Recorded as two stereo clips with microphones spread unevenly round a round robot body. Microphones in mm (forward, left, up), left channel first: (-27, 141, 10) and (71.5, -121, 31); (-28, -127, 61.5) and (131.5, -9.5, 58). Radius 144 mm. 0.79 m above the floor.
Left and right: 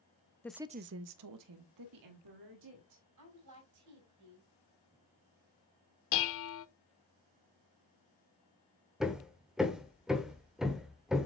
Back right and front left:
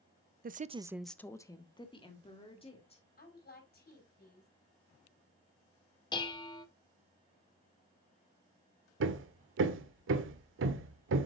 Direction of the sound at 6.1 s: 145° left.